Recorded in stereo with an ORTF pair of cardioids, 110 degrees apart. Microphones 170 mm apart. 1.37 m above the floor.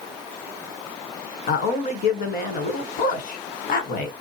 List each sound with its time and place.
1.5 s a man speaking: 70° left, 1.0 m